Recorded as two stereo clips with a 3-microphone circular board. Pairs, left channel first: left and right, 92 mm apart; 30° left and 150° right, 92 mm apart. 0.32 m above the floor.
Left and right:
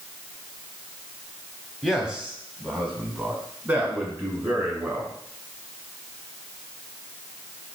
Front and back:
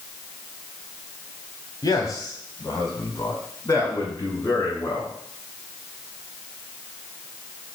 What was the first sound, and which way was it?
A man speaking, 5° right.